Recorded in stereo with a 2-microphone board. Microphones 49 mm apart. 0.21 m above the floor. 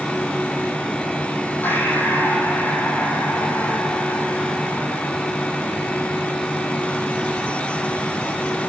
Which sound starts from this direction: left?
Breathing, at 1.6 s.